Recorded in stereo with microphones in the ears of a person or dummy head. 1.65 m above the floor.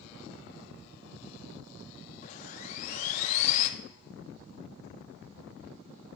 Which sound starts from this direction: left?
Sawing, at 2.2 s.